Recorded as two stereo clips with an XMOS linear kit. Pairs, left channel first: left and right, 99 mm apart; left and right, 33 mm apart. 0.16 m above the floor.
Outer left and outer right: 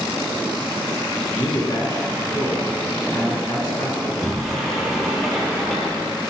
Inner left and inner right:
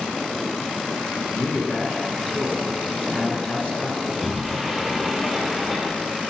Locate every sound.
1.3 s a man speaking: 40° left (ahead or behind), 1.5 m
4.0 s a sliding door: 5° left (ahead or behind), 2.5 m